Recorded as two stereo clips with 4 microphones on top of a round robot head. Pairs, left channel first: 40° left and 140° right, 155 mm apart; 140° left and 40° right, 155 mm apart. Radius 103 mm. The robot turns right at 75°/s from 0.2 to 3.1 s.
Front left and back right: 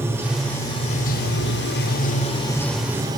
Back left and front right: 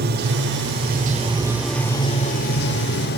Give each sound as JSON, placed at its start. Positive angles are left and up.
{"t": 0.0, "sound": "running water", "azimuth_deg": -60, "distance_m": 2.0}